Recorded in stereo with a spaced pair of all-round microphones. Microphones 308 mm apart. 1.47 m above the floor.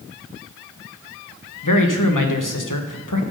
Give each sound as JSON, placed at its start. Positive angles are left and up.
{"t": 1.6, "sound": "a man speaking", "side_deg": 85, "distance_m": 1.3}